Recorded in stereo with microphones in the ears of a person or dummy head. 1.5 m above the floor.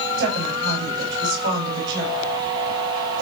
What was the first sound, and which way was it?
A woman speaking, 65° right (ahead or behind).